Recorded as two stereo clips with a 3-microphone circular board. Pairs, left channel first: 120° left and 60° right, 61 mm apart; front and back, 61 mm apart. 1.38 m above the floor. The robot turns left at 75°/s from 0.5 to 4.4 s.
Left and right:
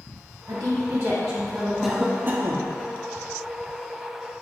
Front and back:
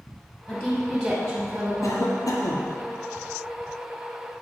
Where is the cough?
30° left, 0.7 m; by 2.7 s 35° right, 0.7 m.